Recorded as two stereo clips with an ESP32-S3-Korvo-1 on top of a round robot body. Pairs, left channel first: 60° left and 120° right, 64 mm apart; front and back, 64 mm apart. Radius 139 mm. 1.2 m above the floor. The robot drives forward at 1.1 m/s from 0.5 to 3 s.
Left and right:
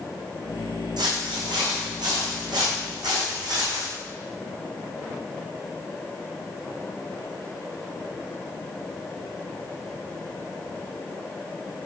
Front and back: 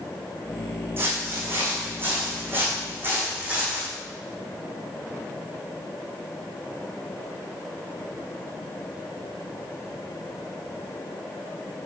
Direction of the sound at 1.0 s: 125° right.